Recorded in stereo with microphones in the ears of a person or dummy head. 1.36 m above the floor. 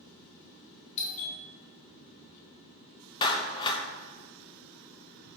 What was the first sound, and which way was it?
A doorbell, 35° left (ahead or behind).